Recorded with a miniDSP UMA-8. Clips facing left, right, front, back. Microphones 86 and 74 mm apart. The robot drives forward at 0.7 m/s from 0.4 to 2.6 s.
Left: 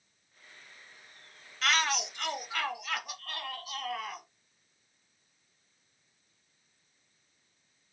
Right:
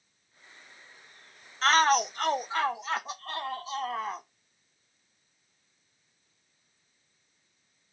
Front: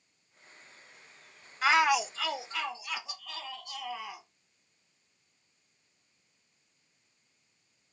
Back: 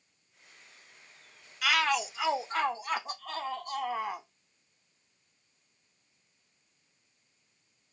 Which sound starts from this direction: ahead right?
A shout, at 1.6 s.